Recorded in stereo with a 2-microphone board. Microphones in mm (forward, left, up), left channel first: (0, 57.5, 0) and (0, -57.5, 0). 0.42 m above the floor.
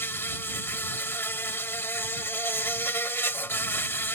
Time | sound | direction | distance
0.0 | an insect | 20° left (ahead or behind) | ?